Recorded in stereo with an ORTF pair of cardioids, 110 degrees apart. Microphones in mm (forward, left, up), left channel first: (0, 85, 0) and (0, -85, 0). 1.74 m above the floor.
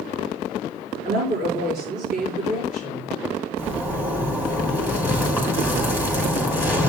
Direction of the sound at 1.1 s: 70° right.